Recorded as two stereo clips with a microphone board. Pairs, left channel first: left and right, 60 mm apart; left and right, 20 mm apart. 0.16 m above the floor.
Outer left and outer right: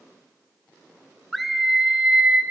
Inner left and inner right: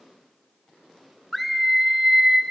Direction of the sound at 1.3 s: Centre (ahead or behind).